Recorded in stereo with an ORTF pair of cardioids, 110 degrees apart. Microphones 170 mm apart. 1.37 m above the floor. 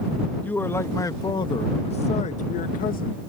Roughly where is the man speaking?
Ahead.